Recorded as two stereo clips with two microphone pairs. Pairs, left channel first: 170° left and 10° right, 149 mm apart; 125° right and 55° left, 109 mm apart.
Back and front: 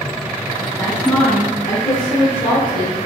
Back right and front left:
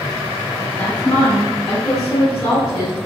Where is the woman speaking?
85° right, 1.6 m; by 3.0 s 155° left, 2.5 m.